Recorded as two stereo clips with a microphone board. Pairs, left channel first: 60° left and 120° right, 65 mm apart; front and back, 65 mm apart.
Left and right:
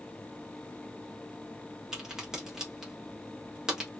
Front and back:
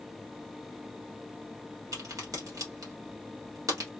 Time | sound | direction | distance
1.9 | a crack | 155° left | 1.4 m